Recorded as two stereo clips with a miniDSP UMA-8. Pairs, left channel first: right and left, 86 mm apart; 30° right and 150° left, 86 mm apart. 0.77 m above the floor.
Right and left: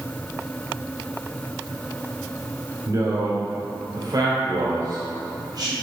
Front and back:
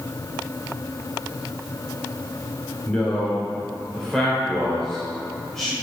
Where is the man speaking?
45° left, 3 m; by 5.7 s 55° left, 4 m.